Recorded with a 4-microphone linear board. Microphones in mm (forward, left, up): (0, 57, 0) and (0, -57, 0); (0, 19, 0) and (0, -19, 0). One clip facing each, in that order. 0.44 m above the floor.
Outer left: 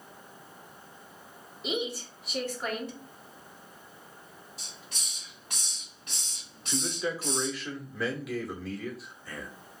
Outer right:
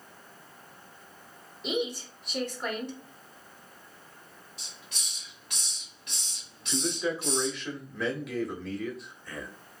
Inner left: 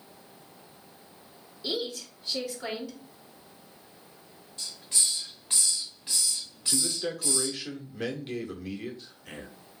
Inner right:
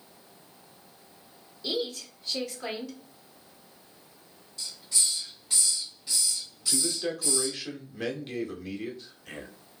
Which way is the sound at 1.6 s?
5° left (ahead or behind).